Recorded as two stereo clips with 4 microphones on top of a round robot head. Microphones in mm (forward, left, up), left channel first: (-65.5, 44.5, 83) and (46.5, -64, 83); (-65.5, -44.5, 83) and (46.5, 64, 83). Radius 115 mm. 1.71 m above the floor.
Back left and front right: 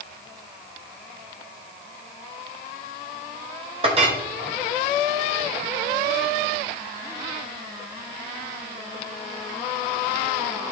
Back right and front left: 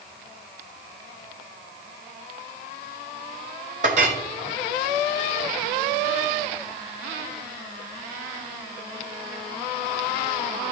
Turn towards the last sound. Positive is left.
turn(degrees=5)